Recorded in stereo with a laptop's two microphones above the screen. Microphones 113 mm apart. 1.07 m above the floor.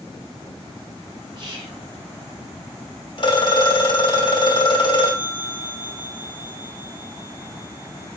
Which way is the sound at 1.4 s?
40° right (ahead or behind).